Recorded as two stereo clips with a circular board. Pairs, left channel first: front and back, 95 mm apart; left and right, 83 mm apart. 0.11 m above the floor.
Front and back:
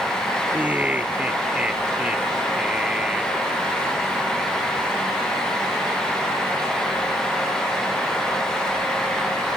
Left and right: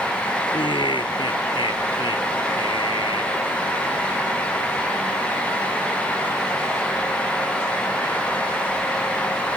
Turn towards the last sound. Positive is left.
turn(degrees=100)